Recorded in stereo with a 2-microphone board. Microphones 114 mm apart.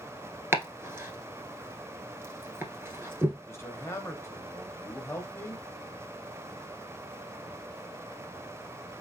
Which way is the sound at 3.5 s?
25° left (ahead or behind).